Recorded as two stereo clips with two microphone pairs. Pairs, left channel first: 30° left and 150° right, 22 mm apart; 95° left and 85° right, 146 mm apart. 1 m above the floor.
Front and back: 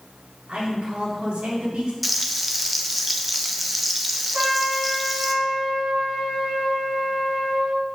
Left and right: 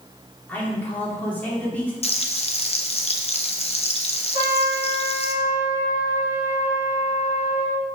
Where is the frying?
120° left, 0.7 m.